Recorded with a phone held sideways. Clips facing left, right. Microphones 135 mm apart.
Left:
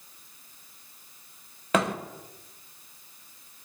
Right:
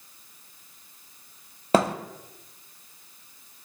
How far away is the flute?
I don't hear a flute.